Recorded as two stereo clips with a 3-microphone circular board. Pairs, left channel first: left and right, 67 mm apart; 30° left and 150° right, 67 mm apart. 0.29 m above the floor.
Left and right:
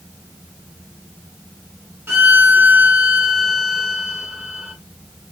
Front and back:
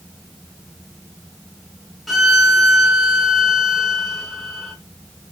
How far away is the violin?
About 0.9 m.